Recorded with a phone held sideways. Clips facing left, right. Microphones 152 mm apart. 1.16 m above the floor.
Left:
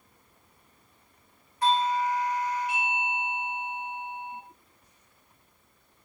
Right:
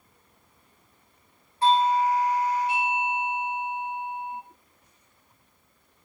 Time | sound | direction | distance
1.6 | a doorbell | 30° right (ahead or behind) | 0.9 m